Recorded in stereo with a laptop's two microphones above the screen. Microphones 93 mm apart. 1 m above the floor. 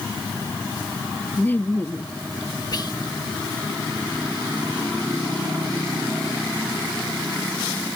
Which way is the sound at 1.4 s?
20° left (ahead or behind).